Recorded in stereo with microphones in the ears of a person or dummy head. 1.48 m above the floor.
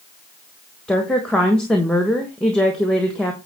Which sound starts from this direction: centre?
A woman speaking, at 0.9 s.